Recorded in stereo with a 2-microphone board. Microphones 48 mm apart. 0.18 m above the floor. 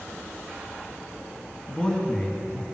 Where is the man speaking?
20° left (ahead or behind), 1.6 m.